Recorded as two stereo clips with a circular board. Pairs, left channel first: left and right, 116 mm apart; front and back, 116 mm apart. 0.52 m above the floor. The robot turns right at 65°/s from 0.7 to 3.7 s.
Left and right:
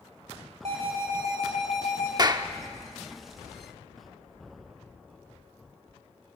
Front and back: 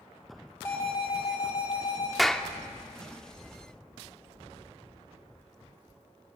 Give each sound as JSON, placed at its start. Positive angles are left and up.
{"t": 0.7, "sound": "an alarm", "azimuth_deg": -70, "distance_m": 5.0}
{"t": 2.2, "sound": "a clap", "azimuth_deg": -90, "distance_m": 0.8}